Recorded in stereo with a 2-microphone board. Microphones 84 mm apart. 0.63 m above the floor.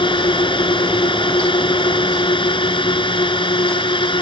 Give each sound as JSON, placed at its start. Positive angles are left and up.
{"t": 0.0, "sound": "a drone", "side_deg": 75}